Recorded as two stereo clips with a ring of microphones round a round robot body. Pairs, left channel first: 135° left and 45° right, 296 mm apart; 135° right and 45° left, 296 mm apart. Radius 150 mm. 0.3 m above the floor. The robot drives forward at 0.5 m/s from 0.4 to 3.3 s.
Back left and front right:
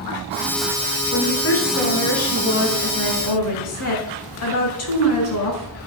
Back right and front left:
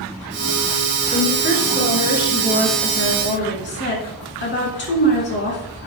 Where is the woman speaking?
170° left, 3.5 m.